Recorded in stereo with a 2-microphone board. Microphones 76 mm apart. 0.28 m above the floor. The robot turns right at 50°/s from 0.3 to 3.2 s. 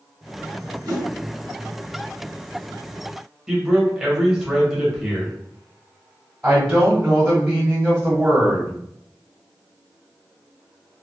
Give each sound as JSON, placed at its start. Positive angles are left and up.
{"t": 0.8, "sound": "a whoosh", "side_deg": -60, "distance_m": 1.6}
{"t": 3.5, "sound": "a man speaking", "side_deg": -5, "distance_m": 1.1}
{"t": 6.4, "sound": "a woman speaking", "side_deg": -15, "distance_m": 1.3}